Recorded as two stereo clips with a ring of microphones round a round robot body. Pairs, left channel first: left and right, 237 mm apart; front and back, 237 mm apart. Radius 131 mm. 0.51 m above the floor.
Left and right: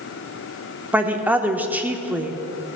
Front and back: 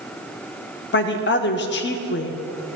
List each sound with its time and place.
0.9 s a woman speaking: 10° right, 0.8 m